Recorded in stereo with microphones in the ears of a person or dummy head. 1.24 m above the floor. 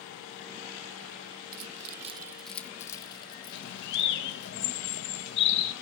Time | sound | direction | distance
1.5 | keys jangling | 80° right | 0.8 m
3.5 | a bird | 65° left (ahead or behind) | 1.8 m